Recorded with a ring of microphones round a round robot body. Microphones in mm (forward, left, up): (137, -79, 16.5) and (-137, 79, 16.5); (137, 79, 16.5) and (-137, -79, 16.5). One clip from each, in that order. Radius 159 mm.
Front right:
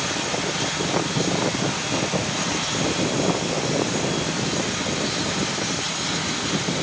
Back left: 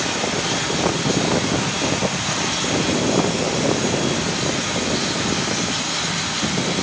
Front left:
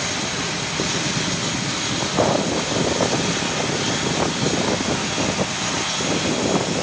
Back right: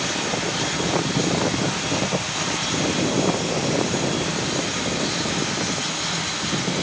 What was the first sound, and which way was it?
Only background noise.